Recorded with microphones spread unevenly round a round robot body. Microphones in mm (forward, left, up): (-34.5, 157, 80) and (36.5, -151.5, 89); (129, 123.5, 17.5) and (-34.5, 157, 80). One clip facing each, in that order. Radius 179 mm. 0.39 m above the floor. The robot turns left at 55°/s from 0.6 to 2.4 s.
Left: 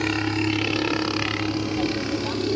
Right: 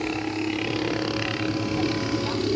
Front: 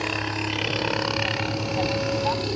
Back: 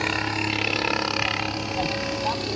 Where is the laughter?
I don't hear laughter.